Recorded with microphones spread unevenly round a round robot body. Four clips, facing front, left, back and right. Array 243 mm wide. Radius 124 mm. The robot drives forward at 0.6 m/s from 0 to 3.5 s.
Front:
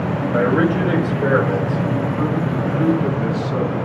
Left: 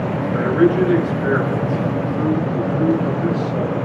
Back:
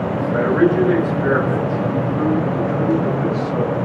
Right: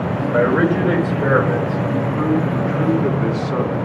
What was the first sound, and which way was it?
A man speaking, 60° right.